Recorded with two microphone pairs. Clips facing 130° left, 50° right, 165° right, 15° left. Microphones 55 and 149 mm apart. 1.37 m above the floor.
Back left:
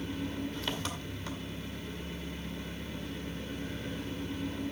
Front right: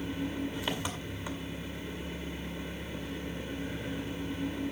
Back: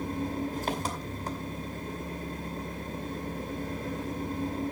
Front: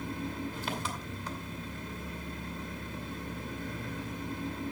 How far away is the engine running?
About 2.5 m.